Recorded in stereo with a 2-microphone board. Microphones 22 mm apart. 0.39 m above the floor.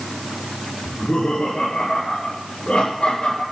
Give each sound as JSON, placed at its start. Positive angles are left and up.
{"t": 0.8, "sound": "laughter", "side_deg": 80, "distance_m": 5.0}